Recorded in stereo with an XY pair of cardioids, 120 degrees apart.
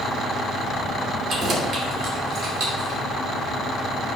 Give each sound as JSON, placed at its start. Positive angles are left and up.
{"t": 1.3, "sound": "keys jangling", "azimuth_deg": -45, "distance_m": 2.5}